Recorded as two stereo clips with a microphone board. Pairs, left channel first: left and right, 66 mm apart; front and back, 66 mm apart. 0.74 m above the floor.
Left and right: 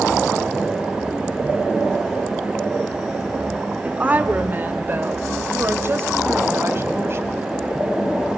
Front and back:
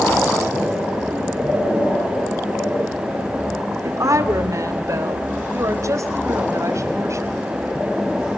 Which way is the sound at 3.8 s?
155° right.